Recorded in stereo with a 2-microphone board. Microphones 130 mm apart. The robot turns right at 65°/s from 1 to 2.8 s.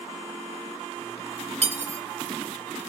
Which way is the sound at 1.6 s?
55° right (ahead or behind).